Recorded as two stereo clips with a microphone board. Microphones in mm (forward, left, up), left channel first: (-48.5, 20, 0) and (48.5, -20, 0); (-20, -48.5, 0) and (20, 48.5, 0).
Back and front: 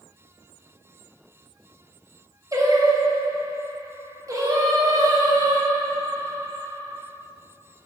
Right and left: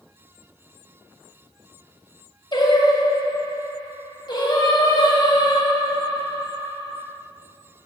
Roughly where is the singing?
Right.